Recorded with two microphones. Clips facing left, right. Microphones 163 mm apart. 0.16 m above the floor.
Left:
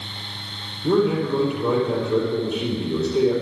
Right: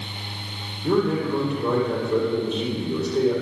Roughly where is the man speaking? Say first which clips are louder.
Left 2 dB; centre.